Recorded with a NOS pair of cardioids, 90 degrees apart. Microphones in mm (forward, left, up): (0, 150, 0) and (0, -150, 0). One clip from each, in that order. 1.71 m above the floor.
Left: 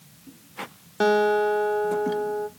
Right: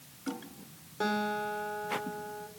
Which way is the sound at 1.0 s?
60° left.